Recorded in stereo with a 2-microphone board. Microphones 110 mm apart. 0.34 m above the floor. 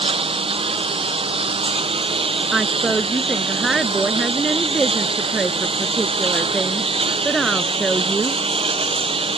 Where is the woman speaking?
Centre (ahead or behind).